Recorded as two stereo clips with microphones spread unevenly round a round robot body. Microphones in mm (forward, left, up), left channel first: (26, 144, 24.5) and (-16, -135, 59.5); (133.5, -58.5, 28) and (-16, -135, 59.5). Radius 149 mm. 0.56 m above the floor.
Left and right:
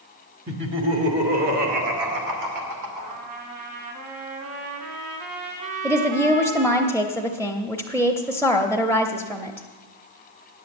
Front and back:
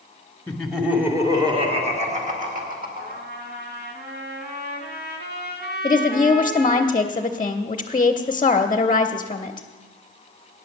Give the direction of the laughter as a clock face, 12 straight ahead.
2 o'clock.